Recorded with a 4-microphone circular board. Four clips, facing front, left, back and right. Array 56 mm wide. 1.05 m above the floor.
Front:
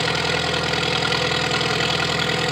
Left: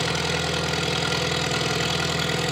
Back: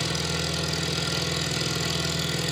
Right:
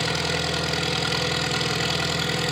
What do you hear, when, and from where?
0.0 s an engine running: straight ahead, 0.8 m